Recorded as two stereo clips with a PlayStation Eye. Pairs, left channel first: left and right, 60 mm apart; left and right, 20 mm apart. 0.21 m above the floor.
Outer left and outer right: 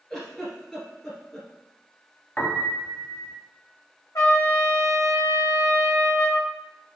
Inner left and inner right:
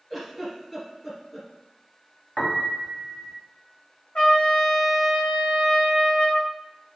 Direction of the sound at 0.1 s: 10° left (ahead or behind).